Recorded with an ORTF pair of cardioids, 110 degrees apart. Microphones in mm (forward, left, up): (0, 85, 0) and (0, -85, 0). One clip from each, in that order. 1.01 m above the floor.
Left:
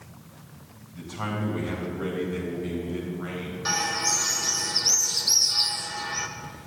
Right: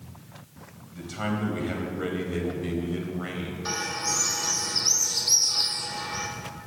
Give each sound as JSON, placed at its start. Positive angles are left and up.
{"t": 0.9, "sound": "a man speaking", "azimuth_deg": -25, "distance_m": 4.5}
{"t": 3.6, "sound": "a bird", "azimuth_deg": 20, "distance_m": 1.2}